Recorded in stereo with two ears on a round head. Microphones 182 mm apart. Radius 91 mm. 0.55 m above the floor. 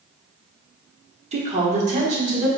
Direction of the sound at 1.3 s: 35° right (ahead or behind).